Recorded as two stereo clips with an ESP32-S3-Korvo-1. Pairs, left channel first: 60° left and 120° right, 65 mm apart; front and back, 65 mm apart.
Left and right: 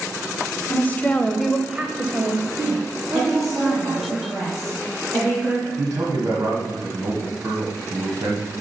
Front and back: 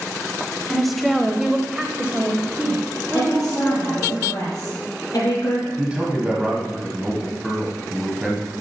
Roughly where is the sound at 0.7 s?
Left.